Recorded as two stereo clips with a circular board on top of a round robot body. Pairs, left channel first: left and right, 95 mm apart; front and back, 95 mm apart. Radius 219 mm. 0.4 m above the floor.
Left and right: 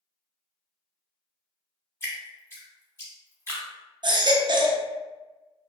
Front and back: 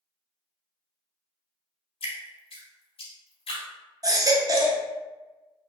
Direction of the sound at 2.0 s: 25° left.